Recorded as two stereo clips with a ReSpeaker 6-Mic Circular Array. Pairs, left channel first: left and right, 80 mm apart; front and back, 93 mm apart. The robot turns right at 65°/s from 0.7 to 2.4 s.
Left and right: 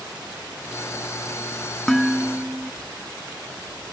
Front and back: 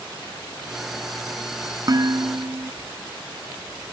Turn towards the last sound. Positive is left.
turn(degrees=-155)